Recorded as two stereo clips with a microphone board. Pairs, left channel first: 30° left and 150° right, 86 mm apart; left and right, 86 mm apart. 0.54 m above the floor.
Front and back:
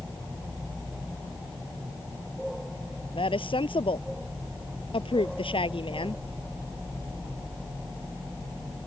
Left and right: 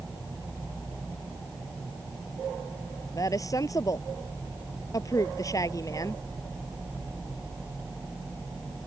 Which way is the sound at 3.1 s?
40° left.